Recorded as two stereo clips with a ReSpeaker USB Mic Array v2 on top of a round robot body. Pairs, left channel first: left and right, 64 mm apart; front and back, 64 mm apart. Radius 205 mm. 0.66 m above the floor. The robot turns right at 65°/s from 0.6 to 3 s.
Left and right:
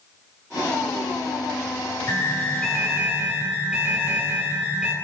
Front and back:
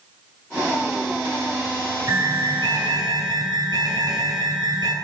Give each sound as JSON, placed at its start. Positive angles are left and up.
{"t": 2.1, "sound": "an alarm", "azimuth_deg": 135, "distance_m": 8.5}